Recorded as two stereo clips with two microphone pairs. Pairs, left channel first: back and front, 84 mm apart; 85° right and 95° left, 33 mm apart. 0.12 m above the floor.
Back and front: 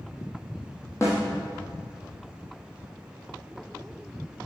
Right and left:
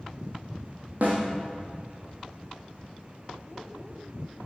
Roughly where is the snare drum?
Behind left.